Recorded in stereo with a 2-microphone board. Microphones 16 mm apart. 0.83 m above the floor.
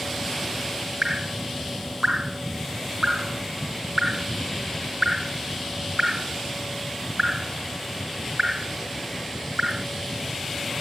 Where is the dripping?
45° right (ahead or behind).